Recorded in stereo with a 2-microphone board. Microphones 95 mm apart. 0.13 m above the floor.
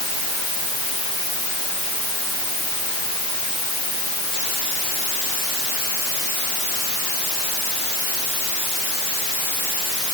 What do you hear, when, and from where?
Only background noise.